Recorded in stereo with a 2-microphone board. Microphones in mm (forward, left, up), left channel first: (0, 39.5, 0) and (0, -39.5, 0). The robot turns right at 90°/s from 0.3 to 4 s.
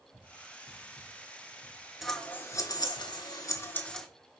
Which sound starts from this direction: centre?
Scissors, at 2.0 s.